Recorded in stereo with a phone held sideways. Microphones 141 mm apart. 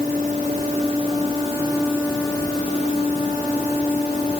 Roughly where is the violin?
I don't hear a violin.